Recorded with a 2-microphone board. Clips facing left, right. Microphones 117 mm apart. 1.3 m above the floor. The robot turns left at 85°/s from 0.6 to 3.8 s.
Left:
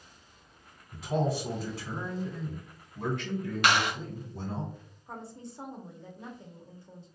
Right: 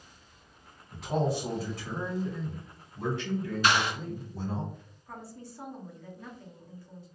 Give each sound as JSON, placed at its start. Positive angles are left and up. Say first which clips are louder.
{"t": 0.9, "sound": "a man speaking", "louder": "even", "azimuth_deg": -90, "distance_m": 1.3}
{"t": 3.6, "sound": "a clap", "louder": "left 1 dB", "side_deg": 75, "distance_m": 0.8}
{"t": 5.1, "sound": "a woman speaking", "louder": "left 1 dB", "side_deg": 25, "distance_m": 0.6}